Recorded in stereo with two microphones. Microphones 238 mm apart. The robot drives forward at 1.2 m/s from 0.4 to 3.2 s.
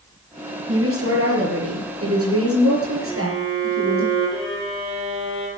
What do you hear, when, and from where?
0.7 s a woman speaking: 60° right (ahead or behind), 4.5 m; by 4.1 s 70° right (ahead or behind), 4.5 m
3.1 s a violin: 15° left (ahead or behind), 4.5 m